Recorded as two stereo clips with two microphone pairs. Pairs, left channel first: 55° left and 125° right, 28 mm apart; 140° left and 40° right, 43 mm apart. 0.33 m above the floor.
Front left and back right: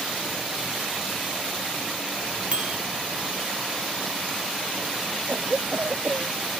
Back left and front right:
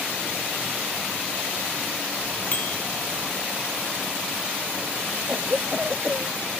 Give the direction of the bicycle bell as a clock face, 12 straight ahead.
6 o'clock.